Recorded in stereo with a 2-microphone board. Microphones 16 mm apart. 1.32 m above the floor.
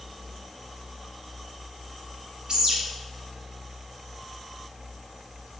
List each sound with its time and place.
2.5 s a bird: 60° right (ahead or behind), 0.6 m